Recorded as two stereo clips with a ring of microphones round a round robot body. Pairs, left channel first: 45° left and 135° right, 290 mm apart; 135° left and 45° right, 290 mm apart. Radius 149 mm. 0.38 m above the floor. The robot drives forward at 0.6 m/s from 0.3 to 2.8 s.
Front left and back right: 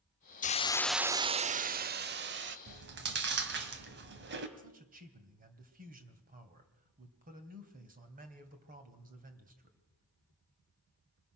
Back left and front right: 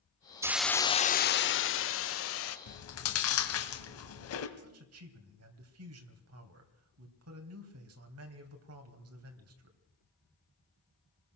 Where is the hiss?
25° left, 0.5 m; by 2.6 s 175° left, 1.2 m.